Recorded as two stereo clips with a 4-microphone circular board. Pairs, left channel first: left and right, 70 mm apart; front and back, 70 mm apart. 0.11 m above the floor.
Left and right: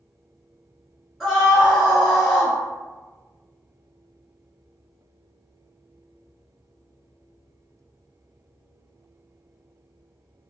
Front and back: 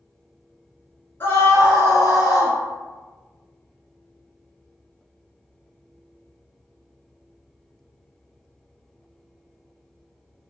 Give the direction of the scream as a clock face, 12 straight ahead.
12 o'clock.